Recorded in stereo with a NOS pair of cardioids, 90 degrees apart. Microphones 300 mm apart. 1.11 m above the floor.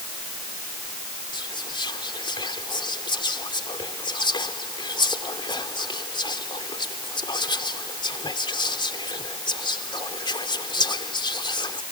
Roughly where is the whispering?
Ahead.